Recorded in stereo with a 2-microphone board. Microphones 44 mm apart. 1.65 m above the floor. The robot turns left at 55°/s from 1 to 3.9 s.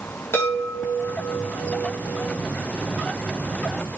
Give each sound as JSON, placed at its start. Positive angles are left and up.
{"t": 0.3, "sound": "a chime", "azimuth_deg": 120, "distance_m": 7.0}